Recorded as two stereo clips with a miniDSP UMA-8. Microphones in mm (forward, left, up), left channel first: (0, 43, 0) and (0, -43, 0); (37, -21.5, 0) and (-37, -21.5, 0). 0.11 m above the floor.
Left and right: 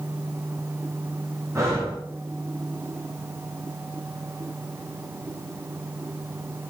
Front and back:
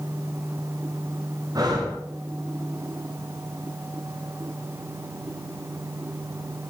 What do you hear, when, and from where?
1.6 s breathing: 145° right, 8 m